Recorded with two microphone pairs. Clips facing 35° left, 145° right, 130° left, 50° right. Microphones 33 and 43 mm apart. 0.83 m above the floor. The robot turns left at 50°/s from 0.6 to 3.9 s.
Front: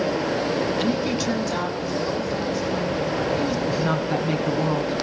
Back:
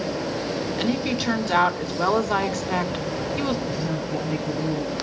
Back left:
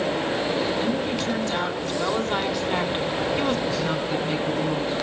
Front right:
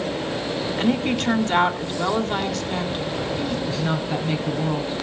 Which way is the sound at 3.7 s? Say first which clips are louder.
Front 4 dB, even; 10° left.